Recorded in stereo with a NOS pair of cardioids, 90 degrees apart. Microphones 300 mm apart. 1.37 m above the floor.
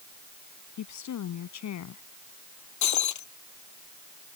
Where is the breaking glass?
70° left.